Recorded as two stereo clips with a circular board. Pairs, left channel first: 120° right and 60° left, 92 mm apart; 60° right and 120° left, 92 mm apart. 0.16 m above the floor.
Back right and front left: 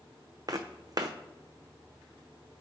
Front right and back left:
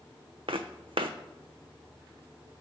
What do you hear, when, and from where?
0.5 s footsteps: 105° left, 0.6 m